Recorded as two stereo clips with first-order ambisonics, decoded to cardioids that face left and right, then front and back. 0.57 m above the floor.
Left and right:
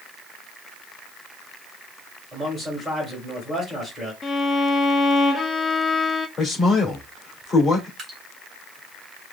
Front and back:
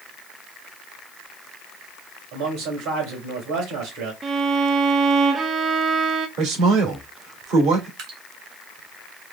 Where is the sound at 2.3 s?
170° left, 3 m.